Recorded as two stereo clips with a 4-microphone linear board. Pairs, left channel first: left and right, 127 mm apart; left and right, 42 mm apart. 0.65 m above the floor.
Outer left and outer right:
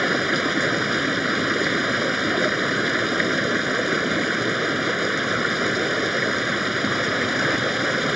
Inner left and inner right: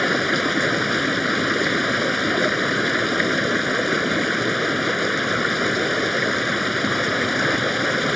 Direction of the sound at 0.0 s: Centre (ahead or behind).